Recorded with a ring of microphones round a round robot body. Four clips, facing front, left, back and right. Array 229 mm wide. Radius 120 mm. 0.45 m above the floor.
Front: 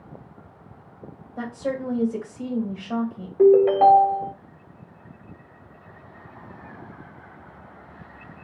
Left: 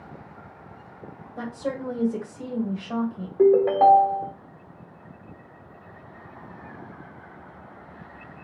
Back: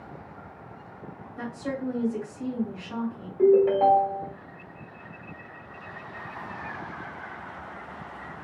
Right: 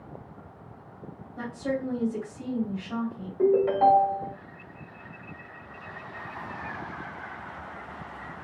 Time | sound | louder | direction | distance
1.4 | a woman speaking | even, front 4 dB | 60° left | 1.9 m
3.4 | a ringtone | left 4 dB, front 4 dB | 60° left | 1.0 m